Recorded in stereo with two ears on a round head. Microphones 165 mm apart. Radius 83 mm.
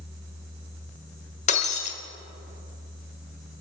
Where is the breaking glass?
40° left (ahead or behind), 1.1 m.